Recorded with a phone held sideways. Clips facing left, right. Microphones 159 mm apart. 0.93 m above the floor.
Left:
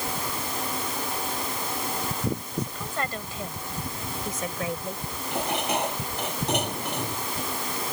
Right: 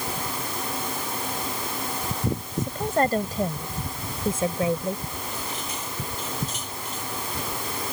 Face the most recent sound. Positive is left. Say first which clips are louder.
# left 7 dB
turn(degrees=70)  # may be behind; listen again after turning